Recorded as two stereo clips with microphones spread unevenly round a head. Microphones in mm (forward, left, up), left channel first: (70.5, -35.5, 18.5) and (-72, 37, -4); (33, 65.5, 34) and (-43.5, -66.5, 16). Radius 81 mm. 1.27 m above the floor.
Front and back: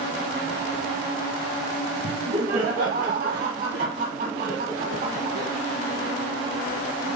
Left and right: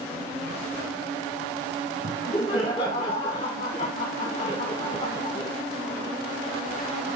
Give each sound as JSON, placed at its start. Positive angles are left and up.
{"t": 2.0, "sound": "laughter", "azimuth_deg": 120, "distance_m": 1.3}